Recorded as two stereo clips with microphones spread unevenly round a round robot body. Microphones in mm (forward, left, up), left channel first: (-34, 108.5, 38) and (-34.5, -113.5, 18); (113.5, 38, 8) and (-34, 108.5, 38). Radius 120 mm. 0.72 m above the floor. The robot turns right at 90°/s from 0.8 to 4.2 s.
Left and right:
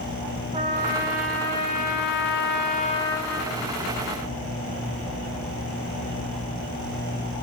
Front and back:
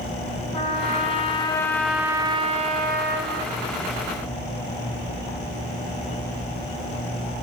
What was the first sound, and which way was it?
A trumpet, 45° right.